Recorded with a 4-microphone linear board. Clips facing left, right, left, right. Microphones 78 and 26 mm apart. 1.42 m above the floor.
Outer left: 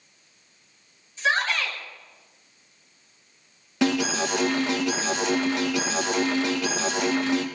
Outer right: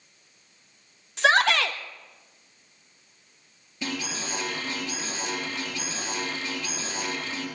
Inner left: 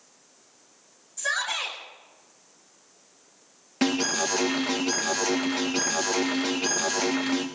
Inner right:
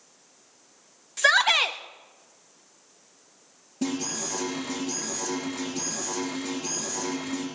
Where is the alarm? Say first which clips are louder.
Outer left 10 dB, inner left 6 dB; 80° left, 1.8 m.